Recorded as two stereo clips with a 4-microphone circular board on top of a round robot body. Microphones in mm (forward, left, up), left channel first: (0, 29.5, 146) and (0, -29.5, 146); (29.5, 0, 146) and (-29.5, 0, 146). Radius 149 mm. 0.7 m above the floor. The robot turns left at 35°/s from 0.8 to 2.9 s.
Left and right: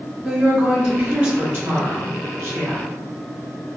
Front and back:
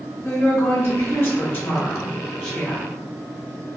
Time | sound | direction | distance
0.2 | a woman speaking | 5° right | 1.5 m